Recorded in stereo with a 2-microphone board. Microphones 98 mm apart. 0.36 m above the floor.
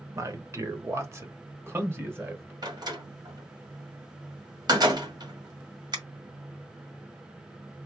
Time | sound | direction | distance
0.1 | a man speaking | 30° right (ahead or behind) | 1.1 m
2.6 | a door slam | 45° right (ahead or behind) | 1.6 m